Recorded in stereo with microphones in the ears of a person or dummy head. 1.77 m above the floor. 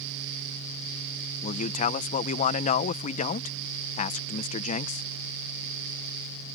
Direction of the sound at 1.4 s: 40° left (ahead or behind).